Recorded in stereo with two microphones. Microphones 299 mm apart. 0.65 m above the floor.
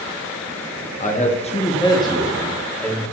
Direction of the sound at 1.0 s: 25° left (ahead or behind).